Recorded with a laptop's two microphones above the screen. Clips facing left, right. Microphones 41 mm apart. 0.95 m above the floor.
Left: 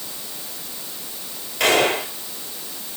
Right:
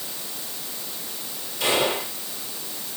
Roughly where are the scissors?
No scissors in this recording.